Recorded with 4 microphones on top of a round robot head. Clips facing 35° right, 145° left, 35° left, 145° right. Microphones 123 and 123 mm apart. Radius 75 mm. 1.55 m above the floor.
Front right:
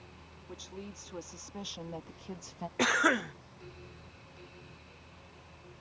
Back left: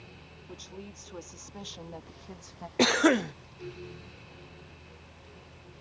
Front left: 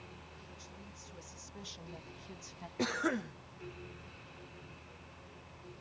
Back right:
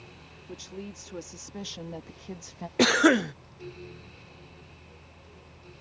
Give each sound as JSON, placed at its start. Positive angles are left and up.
{"t": 0.5, "sound": "a woman speaking", "azimuth_deg": -125}
{"t": 2.8, "sound": "a cough", "azimuth_deg": -155}